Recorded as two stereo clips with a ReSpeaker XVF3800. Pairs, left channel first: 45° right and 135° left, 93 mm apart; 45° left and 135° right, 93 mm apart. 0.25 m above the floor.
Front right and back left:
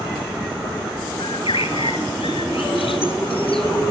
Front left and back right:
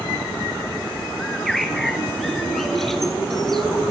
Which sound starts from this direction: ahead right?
A bird, at 1.2 s.